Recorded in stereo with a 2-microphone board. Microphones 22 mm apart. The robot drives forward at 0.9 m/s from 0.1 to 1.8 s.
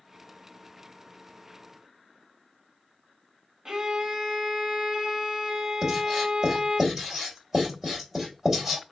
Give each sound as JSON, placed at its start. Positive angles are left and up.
{"t": 3.6, "sound": "a violin", "side_deg": -40, "distance_m": 1.1}
{"t": 5.8, "sound": "writing", "side_deg": -20, "distance_m": 3.0}